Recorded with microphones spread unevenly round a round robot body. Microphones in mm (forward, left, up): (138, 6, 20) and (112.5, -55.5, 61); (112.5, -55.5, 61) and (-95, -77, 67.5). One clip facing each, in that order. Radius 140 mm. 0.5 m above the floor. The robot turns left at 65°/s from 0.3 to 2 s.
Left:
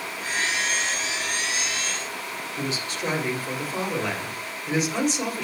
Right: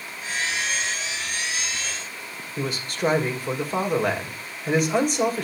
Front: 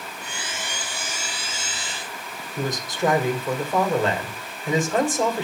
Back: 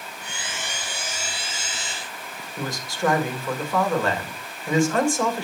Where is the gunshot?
No gunshot in this recording.